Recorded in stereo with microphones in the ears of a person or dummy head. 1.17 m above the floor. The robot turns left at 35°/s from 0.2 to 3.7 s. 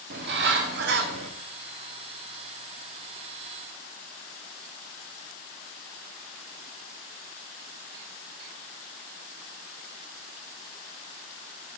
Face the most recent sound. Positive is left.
turn(degrees=160)